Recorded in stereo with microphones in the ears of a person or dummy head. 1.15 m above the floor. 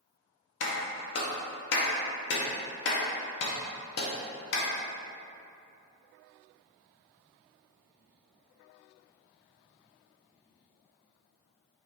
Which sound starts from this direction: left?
A clap, at 0.6 s.